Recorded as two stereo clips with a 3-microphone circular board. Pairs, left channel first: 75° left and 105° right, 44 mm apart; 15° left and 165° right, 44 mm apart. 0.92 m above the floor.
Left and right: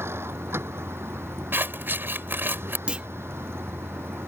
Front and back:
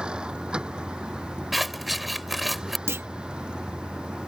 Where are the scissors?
75° right.